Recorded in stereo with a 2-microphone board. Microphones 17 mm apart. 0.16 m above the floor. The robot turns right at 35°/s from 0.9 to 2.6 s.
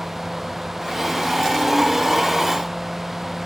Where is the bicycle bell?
No bicycle bell in this recording.